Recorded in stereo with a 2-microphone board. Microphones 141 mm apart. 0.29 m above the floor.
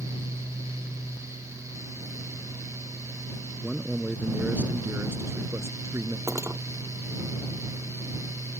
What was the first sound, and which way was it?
A man speaking, 5° right (ahead or behind).